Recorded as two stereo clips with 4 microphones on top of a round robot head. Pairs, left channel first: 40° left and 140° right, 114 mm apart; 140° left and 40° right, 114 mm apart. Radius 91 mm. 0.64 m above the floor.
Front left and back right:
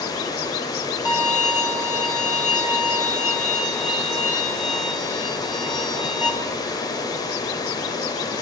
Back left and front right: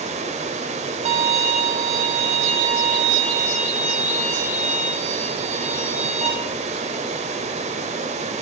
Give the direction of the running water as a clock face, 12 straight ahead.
1 o'clock.